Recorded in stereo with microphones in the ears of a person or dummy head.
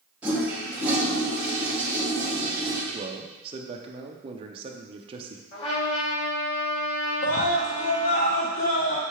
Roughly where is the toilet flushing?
Centre.